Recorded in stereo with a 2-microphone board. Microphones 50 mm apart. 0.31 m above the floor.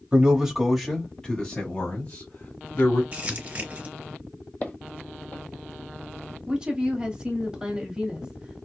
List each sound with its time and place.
0.1 s a man speaking: 15° right (ahead or behind), 1.2 m; by 3.0 s 50° left (ahead or behind), 1.7 m
3.1 s crumpling: 30° right (ahead or behind), 0.8 m
4.6 s footsteps: 35° left (ahead or behind), 0.6 m
6.5 s a woman speaking: 15° right (ahead or behind), 1.4 m